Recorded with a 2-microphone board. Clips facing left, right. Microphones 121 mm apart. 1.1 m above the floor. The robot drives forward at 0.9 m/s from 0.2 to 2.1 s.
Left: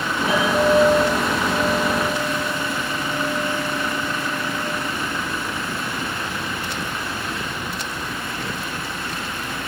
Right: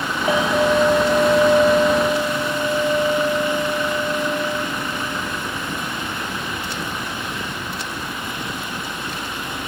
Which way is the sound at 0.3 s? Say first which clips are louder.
Even; 60° right (ahead or behind).